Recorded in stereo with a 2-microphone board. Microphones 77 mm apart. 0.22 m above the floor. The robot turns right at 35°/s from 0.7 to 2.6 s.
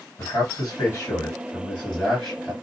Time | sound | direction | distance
0.2 | a man speaking | 130° left | 2.5 m